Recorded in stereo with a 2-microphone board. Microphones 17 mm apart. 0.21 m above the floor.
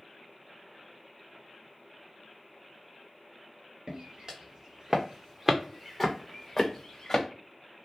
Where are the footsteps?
60° right (ahead or behind), 1.6 m; by 7.2 s 35° left (ahead or behind), 1.3 m.